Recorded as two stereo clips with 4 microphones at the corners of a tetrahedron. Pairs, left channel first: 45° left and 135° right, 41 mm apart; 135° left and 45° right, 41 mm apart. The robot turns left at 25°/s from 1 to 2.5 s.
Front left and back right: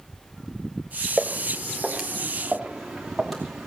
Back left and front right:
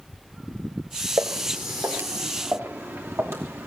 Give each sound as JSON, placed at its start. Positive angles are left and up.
{"t": 1.2, "sound": "footsteps", "azimuth_deg": -45, "distance_m": 1.9}